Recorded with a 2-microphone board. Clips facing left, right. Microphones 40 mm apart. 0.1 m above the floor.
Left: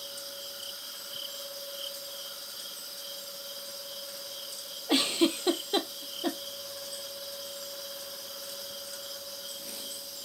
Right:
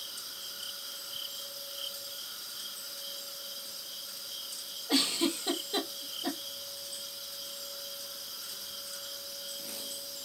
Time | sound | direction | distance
4.9 | a giggle | 35° left (ahead or behind) | 0.8 m